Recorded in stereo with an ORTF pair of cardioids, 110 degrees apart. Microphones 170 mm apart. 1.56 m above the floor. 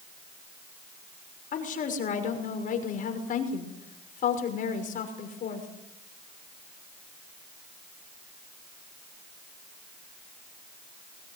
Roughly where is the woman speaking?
Ahead left.